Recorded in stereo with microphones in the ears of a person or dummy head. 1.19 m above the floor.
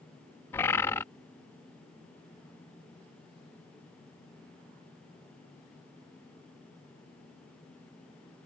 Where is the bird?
15° left (ahead or behind).